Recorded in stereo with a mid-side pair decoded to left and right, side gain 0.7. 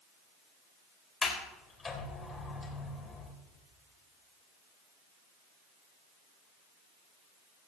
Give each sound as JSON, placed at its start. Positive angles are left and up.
{"t": 1.2, "sound": "a sliding door", "azimuth_deg": 25, "distance_m": 3.5}